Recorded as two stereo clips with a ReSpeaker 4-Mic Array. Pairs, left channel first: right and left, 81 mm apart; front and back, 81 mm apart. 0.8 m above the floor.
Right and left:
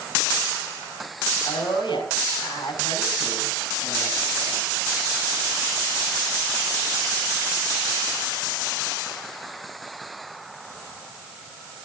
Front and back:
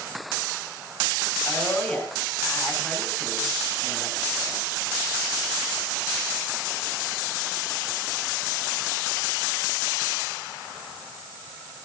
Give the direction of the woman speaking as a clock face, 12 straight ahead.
3 o'clock.